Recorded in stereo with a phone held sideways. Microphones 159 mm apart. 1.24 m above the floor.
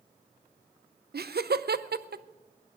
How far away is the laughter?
About 0.6 m.